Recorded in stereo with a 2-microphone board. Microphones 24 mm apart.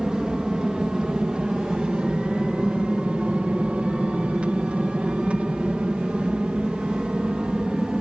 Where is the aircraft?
30° right (ahead or behind); by 8.0 s 40° right (ahead or behind).